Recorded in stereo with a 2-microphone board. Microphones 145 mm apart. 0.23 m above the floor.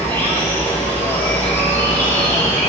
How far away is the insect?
About 3.5 m.